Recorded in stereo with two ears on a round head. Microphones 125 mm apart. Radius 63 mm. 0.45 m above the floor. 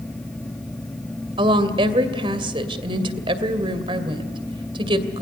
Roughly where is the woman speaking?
Right.